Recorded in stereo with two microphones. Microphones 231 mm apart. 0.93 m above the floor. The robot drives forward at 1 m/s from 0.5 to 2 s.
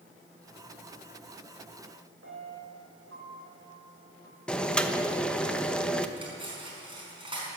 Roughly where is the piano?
Right.